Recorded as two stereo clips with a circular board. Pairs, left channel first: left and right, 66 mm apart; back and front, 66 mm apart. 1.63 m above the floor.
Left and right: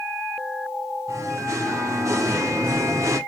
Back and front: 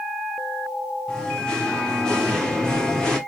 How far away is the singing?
About 0.8 m.